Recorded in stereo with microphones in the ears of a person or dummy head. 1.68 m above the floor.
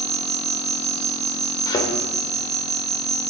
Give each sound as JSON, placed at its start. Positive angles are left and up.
{"t": 0.0, "sound": "an insect", "side_deg": -20, "distance_m": 0.9}
{"t": 1.7, "sound": "a thud", "side_deg": 20, "distance_m": 2.5}